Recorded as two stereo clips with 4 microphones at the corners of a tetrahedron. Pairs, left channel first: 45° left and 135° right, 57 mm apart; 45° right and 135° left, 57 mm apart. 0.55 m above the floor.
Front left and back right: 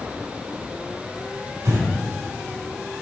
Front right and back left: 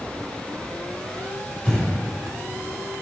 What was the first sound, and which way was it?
Breathing, 110° right.